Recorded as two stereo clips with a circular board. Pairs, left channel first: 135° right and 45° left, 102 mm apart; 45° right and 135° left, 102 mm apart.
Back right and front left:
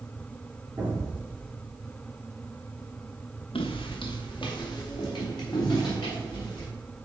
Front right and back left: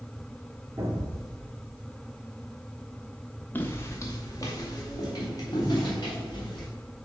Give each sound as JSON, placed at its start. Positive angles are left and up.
{"t": 0.8, "sound": "an explosion", "azimuth_deg": 105, "distance_m": 2.5}
{"t": 3.5, "sound": "footsteps", "azimuth_deg": -115, "distance_m": 1.1}